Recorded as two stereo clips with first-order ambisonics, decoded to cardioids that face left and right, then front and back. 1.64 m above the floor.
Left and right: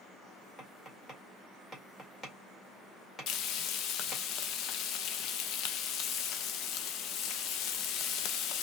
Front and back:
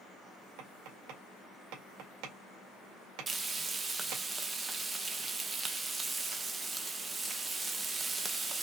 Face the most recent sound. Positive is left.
turn(degrees=110)